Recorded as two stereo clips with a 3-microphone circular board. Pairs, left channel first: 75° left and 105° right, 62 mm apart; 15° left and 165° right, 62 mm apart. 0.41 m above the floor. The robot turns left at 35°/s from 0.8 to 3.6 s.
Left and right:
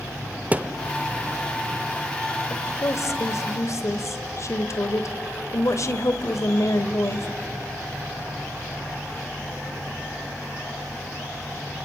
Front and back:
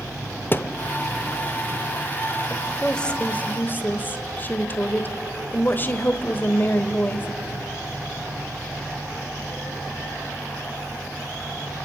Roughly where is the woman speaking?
Left.